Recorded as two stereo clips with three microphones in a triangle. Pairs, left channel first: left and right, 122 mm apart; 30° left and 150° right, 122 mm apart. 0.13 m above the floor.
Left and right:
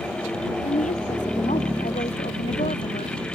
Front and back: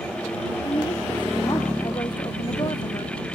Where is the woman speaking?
85° left.